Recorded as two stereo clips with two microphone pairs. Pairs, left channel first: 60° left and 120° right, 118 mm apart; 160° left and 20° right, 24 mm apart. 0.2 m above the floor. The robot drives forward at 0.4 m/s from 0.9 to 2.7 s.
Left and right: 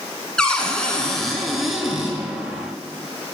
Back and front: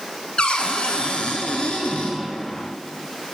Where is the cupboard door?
145° left, 0.9 m; by 2.2 s 160° left, 1.3 m.